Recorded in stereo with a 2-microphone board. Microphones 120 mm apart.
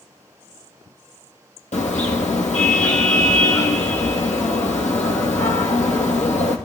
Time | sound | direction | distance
1.7 | a car horn | 70° left (ahead or behind) | 2.5 m